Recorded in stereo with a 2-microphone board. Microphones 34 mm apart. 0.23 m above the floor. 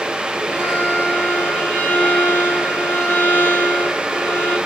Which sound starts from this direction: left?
A violin, at 0.5 s.